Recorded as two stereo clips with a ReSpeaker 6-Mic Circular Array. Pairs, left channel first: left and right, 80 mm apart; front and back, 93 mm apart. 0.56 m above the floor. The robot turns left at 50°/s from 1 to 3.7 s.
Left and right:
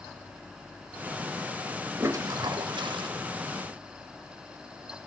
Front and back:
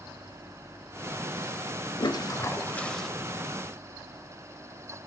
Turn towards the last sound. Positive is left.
turn(degrees=-120)